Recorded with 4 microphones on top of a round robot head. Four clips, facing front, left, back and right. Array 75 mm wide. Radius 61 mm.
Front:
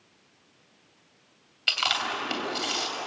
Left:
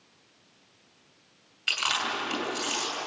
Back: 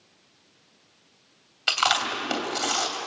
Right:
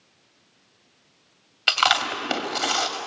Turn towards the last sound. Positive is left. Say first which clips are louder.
# right 8 dB, back 4 dB
turn(degrees=-105)